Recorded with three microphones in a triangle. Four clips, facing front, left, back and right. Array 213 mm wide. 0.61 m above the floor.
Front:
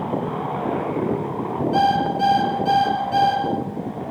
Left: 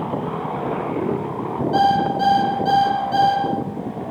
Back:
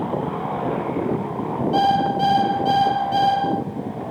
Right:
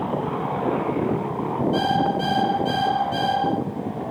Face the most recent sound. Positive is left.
turn(degrees=145)